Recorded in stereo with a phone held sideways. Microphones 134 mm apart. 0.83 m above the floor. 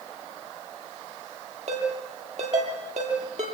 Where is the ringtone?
60° right (ahead or behind), 10 m.